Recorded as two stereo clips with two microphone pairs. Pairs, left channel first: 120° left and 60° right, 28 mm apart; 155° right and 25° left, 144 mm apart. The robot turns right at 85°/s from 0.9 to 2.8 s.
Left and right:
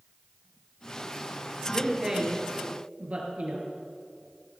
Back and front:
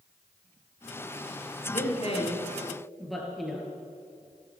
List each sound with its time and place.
1.7 s a man speaking: 160° right, 2.5 m; by 3.7 s 65° right, 2.5 m